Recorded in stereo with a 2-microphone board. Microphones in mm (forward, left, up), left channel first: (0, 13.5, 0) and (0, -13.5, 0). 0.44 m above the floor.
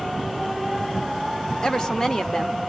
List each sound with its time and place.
1.6 s a woman speaking: 25° left (ahead or behind), 0.8 m